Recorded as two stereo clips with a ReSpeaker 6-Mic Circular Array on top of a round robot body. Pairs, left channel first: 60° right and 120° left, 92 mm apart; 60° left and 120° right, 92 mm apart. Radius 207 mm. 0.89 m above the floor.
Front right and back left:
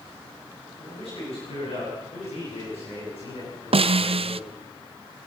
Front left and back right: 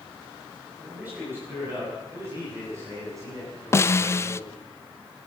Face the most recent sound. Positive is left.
turn(degrees=120)